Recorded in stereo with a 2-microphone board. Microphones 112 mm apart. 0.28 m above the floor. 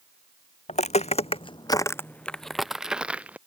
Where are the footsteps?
75° left (ahead or behind); by 3.4 s 10° right (ahead or behind).